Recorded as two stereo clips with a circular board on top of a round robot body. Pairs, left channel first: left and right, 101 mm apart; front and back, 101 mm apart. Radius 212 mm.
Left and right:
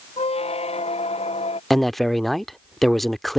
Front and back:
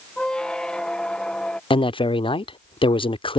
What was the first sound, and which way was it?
A squeak, 85° left.